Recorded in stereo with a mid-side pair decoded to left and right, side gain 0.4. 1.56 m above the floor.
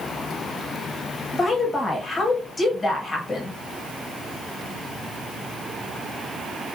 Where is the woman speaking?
35° left, 1.1 m.